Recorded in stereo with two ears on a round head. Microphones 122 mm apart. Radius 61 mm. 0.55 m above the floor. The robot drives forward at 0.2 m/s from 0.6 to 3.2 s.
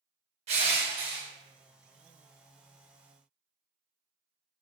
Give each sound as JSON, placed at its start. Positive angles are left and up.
{"t": 0.5, "sound": "crushing", "side_deg": -45, "distance_m": 0.7}